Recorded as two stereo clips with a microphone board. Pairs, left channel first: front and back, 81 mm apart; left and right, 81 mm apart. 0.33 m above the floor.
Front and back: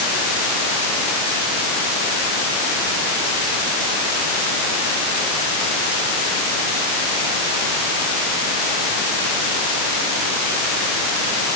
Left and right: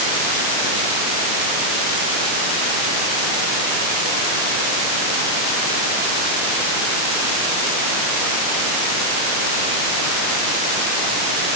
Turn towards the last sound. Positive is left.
No sound to turn to.